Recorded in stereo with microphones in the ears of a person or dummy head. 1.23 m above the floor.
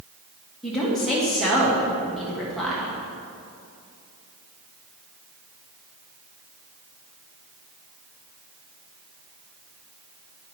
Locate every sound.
0.6 s a woman speaking: centre (ahead or behind), 1.6 m